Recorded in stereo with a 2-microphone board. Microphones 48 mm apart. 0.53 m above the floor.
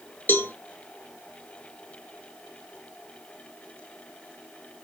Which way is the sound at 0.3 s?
45° left (ahead or behind).